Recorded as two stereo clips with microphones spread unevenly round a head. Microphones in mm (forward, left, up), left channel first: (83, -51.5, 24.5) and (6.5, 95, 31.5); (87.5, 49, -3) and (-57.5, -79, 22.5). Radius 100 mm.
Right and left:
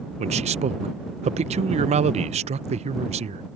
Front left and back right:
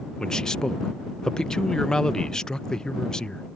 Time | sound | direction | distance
0.2 | a man speaking | 115° left | ?